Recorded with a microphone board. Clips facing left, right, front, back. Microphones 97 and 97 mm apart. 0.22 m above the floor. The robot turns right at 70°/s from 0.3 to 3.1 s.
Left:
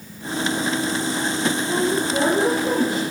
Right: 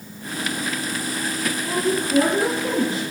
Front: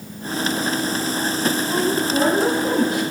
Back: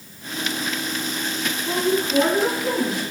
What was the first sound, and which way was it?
A woman speaking, 130° right.